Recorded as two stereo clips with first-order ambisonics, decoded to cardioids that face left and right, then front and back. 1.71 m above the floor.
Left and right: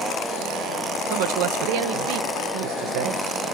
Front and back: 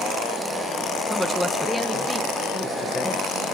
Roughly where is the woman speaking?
Right.